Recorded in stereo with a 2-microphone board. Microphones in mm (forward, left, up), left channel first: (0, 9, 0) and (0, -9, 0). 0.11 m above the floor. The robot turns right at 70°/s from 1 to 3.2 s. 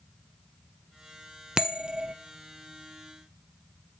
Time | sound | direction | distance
1.6 | a bell | 130° right | 0.9 m